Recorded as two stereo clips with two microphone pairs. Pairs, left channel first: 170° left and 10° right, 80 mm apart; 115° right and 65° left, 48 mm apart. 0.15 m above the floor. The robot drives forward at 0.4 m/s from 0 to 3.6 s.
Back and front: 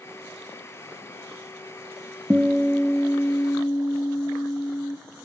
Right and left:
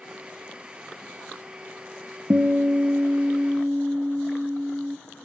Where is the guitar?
65° left, 0.6 m; by 5.0 s 125° left, 0.7 m.